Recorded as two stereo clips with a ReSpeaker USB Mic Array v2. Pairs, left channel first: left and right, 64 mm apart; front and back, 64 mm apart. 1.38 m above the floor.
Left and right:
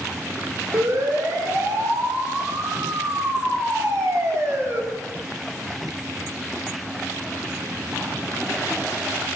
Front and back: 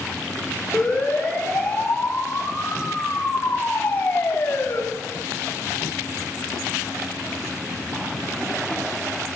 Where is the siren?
75° right, 8.5 m; by 4.8 s 50° right, 4.5 m.